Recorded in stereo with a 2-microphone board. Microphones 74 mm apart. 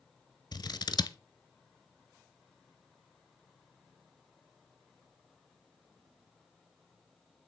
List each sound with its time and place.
0.5 s scissors: 75° left (ahead or behind), 0.8 m